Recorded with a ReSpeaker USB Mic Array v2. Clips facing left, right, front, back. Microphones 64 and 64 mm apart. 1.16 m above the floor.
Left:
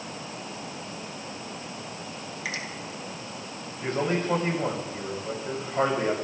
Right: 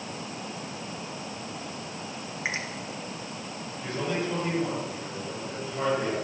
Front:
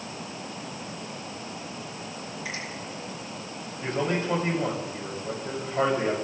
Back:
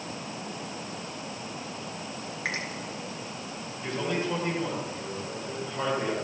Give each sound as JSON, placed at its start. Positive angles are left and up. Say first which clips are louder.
{"t": 2.5, "sound": "a finger snap", "louder": "right 2 dB, back 5 dB", "azimuth_deg": -150, "distance_m": 3.0}
{"t": 3.8, "sound": "a man speaking", "louder": "left 4 dB, front 3 dB", "azimuth_deg": 45, "distance_m": 7.5}